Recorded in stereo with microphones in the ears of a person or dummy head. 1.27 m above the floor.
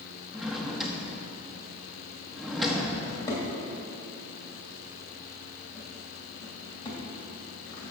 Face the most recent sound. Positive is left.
turn(degrees=20)  # may be behind; listen again after turning